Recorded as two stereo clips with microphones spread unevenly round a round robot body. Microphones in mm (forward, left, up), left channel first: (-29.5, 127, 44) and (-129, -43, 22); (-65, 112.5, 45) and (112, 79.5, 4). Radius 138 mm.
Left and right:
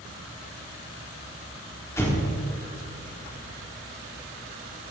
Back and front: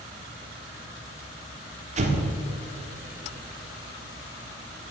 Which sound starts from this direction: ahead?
An explosion, at 2.0 s.